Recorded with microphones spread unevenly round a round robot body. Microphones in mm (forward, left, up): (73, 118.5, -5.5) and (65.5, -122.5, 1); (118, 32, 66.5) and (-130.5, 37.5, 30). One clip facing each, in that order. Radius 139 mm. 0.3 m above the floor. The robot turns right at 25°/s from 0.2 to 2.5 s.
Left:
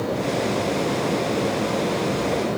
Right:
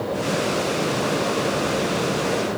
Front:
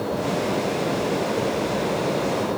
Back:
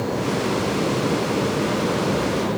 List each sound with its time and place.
Only background noise.